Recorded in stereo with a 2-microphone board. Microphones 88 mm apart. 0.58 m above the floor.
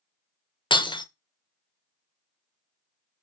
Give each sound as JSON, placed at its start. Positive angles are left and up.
{"t": 0.7, "sound": "breaking glass", "side_deg": 70, "distance_m": 0.6}